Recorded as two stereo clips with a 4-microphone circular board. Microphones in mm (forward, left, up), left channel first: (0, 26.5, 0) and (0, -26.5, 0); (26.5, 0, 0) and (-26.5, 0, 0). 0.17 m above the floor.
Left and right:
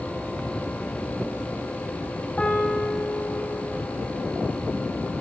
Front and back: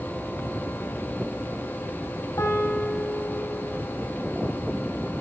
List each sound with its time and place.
2.4 s a piano: 25° left, 5.5 m